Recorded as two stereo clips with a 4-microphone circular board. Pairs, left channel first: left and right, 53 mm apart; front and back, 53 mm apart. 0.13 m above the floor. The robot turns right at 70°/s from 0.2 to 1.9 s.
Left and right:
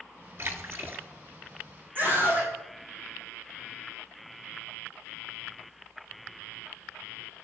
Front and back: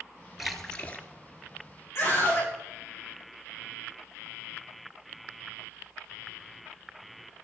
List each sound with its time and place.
0.4 s a splash: 95° right, 1.4 m; by 1.1 s 50° right, 1.4 m
1.9 s a scream: 35° right, 8.5 m